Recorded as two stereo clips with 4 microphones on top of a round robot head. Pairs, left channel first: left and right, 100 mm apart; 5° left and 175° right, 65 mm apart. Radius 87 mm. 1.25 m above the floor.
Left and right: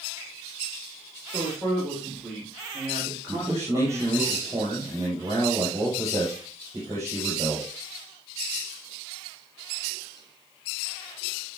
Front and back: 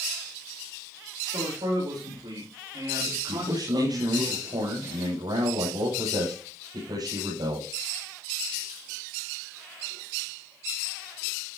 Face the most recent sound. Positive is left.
turn(degrees=-155)